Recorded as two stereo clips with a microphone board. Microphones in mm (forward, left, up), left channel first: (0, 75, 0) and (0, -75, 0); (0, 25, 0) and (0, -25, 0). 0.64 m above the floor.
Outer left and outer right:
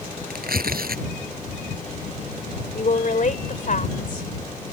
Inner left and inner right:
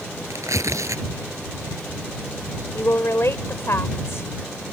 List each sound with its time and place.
0.3 s tearing paper: 80° right
2.7 s a woman speaking: 60° left (ahead or behind)